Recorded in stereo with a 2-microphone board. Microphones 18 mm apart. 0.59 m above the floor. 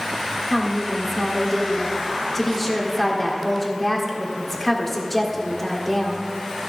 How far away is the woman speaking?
About 1.7 m.